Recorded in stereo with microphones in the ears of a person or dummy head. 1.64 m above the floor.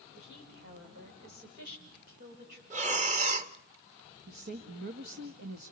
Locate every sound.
0.1 s a woman speaking: 50° right (ahead or behind), 6.5 m; by 2.6 s 55° right (ahead or behind), 10.5 m
2.7 s breathing: 40° right (ahead or behind), 2.0 m
4.3 s a woman speaking: 55° right (ahead or behind), 2.0 m